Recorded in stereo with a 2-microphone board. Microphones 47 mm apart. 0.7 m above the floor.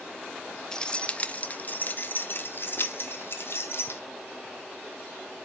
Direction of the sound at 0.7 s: 15° left (ahead or behind).